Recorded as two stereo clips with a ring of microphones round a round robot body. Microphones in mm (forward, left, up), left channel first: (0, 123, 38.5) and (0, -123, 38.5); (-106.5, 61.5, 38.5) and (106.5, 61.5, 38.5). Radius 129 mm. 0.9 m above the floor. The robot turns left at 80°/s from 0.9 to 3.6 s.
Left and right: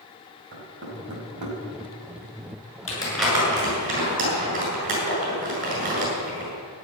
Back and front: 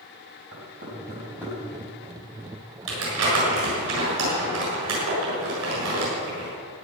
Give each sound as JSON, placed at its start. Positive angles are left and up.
{"t": 0.5, "sound": "knocking", "azimuth_deg": -45, "distance_m": 5.0}
{"t": 2.9, "sound": "crumpling", "azimuth_deg": 25, "distance_m": 7.5}